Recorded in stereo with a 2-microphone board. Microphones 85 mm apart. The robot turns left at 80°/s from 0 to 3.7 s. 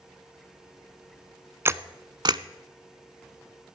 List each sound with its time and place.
1.6 s a camera shutter: 30° right (ahead or behind), 0.5 m; by 2.4 s 55° right (ahead or behind), 0.5 m